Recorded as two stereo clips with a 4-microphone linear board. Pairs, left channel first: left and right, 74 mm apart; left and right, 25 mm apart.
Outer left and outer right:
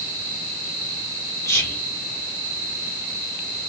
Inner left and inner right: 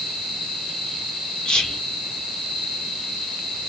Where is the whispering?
45° left (ahead or behind), 1.7 m.